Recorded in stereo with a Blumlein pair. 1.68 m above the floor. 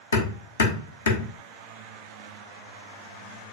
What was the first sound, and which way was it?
Hammering, 65° left.